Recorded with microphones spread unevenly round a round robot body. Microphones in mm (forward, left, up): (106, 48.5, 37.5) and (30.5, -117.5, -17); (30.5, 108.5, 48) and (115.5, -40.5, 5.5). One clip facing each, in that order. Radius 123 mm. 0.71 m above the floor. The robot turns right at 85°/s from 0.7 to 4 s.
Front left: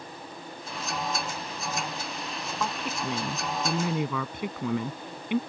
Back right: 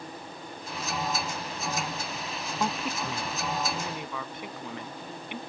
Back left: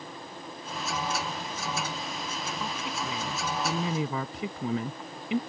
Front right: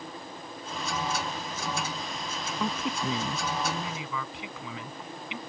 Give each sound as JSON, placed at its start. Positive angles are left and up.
{"t": 2.6, "sound": "a woman speaking", "azimuth_deg": -45}